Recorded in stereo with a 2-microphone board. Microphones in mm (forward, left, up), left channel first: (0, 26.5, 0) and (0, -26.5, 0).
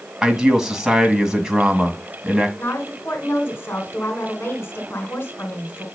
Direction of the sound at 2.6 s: 50° left (ahead or behind).